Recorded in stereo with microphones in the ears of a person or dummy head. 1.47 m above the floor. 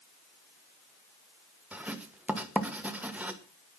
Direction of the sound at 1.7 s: Centre (ahead or behind).